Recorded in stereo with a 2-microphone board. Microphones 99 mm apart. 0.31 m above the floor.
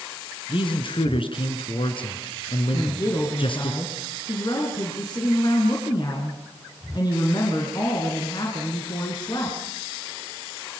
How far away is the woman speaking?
About 5 m.